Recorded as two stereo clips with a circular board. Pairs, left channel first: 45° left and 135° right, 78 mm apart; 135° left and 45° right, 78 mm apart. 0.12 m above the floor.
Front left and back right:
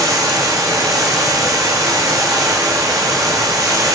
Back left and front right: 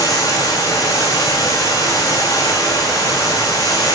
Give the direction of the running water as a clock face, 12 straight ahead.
6 o'clock.